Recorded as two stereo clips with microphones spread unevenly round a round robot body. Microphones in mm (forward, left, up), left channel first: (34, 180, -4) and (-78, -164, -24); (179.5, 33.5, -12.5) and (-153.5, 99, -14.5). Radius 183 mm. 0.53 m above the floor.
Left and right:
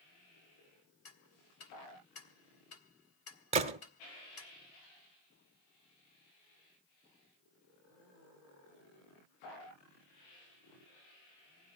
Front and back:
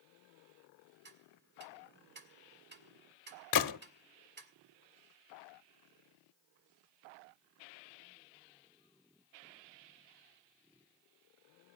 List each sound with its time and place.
1.1 s ticking: 120° left, 1.8 m
3.5 s a gunshot: 40° right, 0.9 m